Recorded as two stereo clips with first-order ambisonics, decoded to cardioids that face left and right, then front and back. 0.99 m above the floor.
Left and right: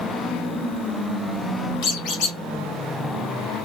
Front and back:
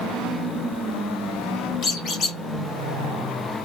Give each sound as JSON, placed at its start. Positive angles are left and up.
{"t": 1.8, "sound": "a squeak", "azimuth_deg": 55, "distance_m": 1.0}